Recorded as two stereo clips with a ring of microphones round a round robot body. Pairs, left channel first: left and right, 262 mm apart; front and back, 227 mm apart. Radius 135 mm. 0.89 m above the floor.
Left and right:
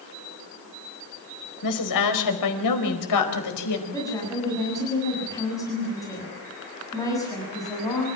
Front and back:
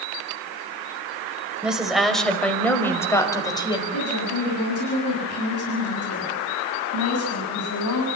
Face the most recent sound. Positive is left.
turn(degrees=10)